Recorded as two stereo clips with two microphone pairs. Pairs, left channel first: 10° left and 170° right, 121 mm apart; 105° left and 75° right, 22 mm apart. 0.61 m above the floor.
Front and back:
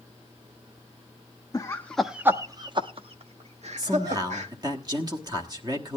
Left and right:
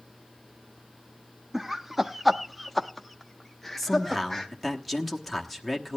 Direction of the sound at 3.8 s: 160° right.